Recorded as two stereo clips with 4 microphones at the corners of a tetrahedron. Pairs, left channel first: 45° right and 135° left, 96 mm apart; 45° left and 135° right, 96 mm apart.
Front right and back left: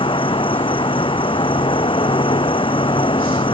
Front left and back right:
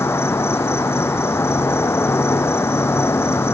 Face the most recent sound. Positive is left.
turn(degrees=-20)